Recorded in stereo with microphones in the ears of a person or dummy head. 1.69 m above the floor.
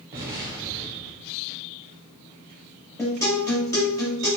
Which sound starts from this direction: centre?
A guitar, at 3.0 s.